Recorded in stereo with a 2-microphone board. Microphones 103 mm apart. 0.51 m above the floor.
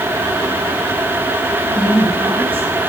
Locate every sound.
1.7 s a woman speaking: 60° right (ahead or behind), 4.5 m